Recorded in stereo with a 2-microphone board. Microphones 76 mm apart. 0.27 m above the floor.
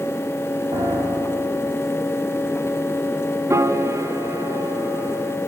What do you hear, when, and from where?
0.7 s a piano: 85° right, 6 m
3.5 s a piano: 40° right (ahead or behind), 1.2 m